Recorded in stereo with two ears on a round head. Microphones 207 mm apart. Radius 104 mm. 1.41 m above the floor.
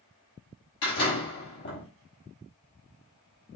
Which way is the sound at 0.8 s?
50° left (ahead or behind).